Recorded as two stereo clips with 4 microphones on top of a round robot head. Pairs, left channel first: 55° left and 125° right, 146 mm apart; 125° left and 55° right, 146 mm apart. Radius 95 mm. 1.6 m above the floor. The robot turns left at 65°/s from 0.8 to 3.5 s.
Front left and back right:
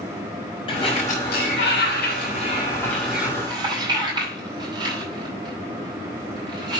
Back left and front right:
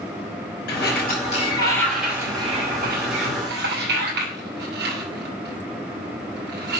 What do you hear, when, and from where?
0.7 s a sliding door: 115° left, 6 m; by 6.8 s 65° right, 6 m